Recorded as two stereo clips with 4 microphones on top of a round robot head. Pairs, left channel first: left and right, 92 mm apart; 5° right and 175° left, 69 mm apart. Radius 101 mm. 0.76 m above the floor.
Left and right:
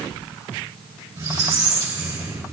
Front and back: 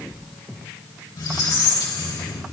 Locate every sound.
1.2 s a squeak: 35° right, 2.5 m